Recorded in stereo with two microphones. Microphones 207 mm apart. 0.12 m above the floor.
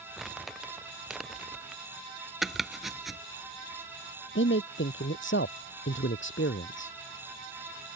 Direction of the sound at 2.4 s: Centre (ahead or behind).